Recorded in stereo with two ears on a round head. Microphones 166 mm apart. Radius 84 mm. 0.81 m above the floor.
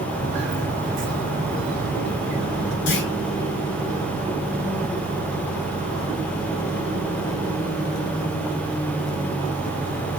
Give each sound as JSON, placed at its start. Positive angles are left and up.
{"t": 0.1, "sound": "footsteps", "side_deg": -35, "distance_m": 4.5}
{"t": 2.9, "sound": "a clunk", "side_deg": 70, "distance_m": 4.0}